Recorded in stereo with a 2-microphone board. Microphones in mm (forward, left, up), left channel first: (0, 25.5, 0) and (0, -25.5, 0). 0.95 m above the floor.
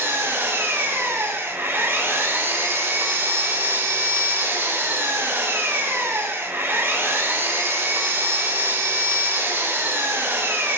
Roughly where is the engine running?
Right.